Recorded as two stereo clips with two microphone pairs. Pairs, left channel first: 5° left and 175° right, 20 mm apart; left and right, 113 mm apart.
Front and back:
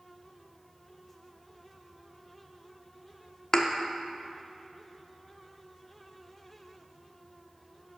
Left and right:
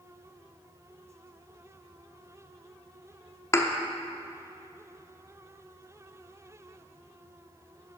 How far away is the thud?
About 0.8 m.